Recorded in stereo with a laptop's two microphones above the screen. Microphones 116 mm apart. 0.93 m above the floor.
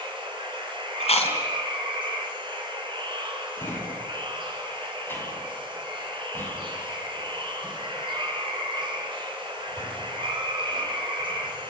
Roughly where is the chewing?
Left.